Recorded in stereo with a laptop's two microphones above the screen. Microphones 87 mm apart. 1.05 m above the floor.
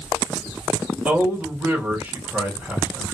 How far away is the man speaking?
About 1.5 m.